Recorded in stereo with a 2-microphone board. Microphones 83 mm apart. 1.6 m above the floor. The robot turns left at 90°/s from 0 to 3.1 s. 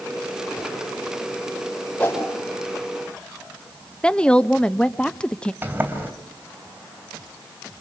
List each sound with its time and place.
2.0 s a whoosh: 15° left (ahead or behind), 5 m; by 2.3 s 45° left (ahead or behind), 5 m
4.0 s a woman speaking: 10° left (ahead or behind), 0.7 m
5.6 s a sliding door: 25° right (ahead or behind), 3 m